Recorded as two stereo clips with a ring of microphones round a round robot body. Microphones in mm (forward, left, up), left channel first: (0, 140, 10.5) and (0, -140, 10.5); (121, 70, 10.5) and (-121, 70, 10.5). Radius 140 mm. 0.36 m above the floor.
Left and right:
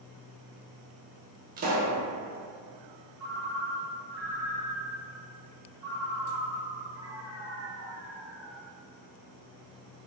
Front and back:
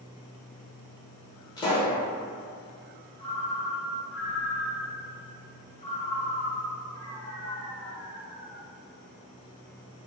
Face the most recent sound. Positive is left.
turn(degrees=-15)